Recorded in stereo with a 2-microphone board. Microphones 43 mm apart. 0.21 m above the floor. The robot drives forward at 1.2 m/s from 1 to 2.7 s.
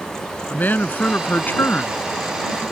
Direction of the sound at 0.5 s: 45° left (ahead or behind).